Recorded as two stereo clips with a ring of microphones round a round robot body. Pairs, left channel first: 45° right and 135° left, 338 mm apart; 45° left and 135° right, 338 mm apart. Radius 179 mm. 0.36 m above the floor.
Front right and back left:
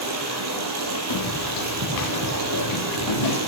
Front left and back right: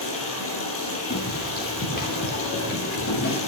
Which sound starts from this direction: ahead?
Footsteps, at 1.1 s.